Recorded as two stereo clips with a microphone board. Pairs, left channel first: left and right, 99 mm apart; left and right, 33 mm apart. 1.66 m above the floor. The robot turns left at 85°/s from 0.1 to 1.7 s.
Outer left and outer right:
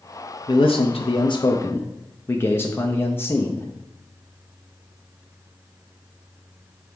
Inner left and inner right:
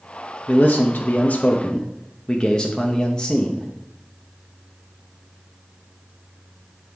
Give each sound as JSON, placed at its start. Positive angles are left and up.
{"t": 0.5, "sound": "a man speaking", "azimuth_deg": 130, "distance_m": 0.7}